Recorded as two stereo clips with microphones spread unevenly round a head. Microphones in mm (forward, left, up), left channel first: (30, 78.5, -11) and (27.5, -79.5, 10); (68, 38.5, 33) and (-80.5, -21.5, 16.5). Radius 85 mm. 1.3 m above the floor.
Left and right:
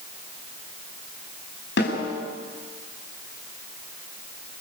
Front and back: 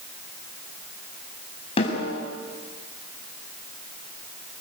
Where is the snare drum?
75° left, 7 m.